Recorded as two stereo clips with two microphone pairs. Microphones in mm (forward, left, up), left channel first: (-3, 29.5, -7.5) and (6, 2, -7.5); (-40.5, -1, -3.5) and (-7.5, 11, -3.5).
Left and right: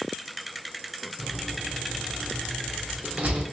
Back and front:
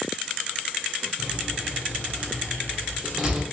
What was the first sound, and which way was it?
A door slam, 55° right.